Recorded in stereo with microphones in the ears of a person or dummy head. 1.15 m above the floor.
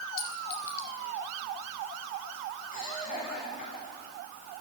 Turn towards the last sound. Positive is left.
turn(degrees=45)  # may be behind; listen again after turning